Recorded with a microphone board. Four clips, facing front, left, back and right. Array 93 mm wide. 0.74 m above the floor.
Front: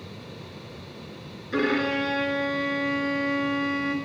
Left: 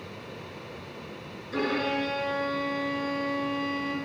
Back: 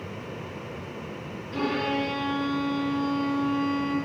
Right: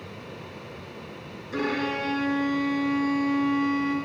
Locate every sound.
1.5 s a violin: 10° right, 6 m